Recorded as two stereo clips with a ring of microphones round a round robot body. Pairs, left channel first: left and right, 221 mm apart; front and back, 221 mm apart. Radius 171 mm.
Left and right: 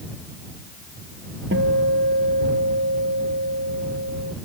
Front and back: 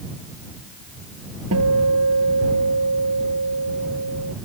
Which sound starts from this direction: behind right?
A guitar, at 1.5 s.